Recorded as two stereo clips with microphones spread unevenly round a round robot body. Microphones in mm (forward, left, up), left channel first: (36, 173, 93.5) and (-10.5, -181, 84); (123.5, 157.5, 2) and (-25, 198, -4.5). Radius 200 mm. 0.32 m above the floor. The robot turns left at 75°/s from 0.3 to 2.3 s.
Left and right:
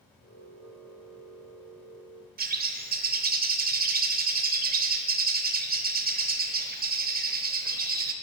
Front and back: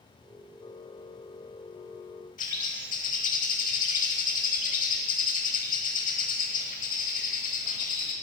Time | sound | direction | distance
2.4 | a bird | 40° right | 0.9 m